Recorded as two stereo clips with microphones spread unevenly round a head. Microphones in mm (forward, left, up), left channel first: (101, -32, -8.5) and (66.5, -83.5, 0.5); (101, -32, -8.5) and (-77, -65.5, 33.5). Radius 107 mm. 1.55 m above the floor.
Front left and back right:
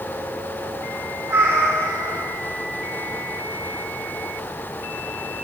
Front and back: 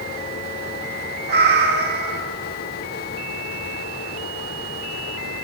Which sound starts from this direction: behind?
A cat meowing, at 1.3 s.